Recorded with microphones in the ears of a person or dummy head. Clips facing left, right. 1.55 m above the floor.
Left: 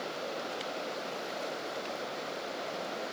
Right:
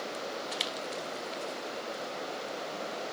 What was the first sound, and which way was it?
Only background noise.